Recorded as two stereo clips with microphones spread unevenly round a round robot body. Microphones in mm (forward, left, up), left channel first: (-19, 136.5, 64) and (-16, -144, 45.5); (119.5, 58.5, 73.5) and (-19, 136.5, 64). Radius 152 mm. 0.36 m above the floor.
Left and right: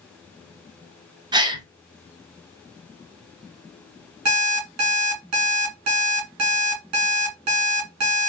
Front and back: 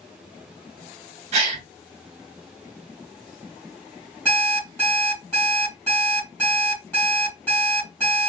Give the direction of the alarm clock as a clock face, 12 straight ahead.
4 o'clock.